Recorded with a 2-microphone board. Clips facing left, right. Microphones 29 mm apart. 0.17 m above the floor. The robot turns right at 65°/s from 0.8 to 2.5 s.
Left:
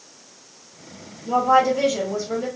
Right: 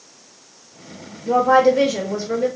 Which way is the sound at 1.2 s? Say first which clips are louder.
Right 3 dB; 130° right.